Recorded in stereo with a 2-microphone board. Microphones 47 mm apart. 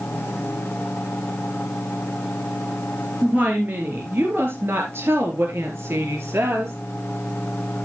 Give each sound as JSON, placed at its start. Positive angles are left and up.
{"t": 3.2, "sound": "a woman speaking", "side_deg": -40, "distance_m": 4.0}